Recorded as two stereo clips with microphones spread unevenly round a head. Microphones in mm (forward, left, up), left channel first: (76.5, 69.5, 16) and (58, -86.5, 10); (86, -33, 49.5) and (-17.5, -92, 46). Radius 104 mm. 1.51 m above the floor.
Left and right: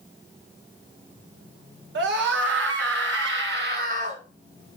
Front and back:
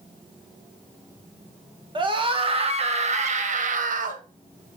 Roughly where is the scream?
Right.